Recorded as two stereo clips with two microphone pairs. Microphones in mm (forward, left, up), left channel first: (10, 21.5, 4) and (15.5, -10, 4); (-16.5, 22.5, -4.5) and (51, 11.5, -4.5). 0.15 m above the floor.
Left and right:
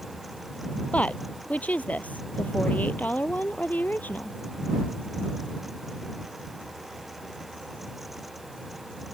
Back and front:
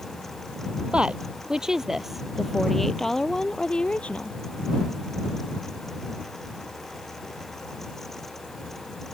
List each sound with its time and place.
0.9 s a woman speaking: 65° left; by 4.4 s 100° left